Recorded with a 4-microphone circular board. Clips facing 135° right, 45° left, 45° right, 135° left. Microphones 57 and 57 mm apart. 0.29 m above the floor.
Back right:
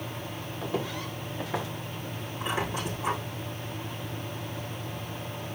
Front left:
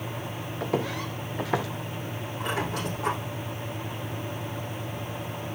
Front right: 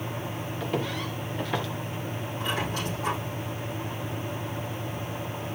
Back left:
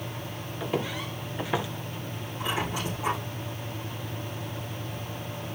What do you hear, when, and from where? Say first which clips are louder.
0.6 s footsteps: front left 4 dB, even; 50° left, 2.5 m; by 1.7 s 55° left, 1.8 m
2.4 s a squeak: front left 1 dB, back left 1 dB; 55° left, 6 m